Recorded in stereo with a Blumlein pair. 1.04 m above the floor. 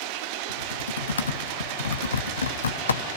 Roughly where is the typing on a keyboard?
Left.